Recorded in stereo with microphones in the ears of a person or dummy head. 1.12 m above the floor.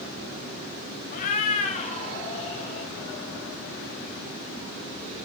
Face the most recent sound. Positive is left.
turn(degrees=40)  # may be behind; listen again after turning